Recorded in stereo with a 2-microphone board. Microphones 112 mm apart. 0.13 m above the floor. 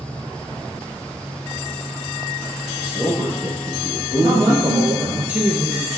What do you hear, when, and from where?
2.8 s a man speaking: 5° right (ahead or behind), 4.5 m; by 5.2 s 30° left (ahead or behind), 3 m
4.2 s a man speaking: 15° right (ahead or behind), 2 m